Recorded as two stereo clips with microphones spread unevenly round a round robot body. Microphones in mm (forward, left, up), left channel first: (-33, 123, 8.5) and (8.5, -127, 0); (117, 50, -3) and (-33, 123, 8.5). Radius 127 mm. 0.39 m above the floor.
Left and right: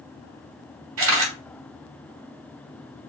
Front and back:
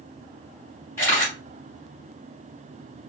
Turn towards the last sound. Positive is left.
turn(degrees=-100)